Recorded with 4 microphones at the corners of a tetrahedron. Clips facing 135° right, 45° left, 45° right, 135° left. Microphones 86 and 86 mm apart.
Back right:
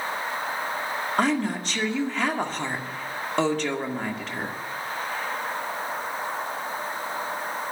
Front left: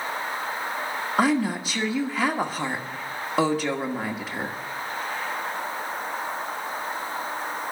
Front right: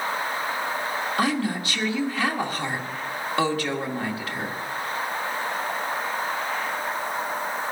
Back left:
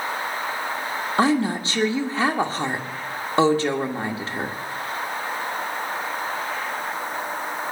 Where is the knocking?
No knocking in this recording.